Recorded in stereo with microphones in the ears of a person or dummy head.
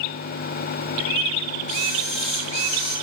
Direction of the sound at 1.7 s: 85° left.